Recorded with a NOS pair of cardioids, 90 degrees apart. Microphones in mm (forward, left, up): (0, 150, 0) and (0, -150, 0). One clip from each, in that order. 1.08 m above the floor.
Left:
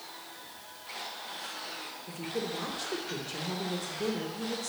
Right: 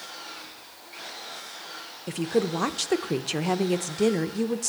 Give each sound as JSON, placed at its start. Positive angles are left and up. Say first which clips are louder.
{"t": 2.1, "sound": "a woman speaking", "louder": "right 10 dB", "azimuth_deg": -70, "distance_m": 0.7}